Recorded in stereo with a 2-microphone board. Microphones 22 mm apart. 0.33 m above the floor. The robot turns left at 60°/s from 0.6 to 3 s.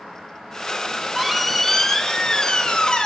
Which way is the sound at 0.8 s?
145° right.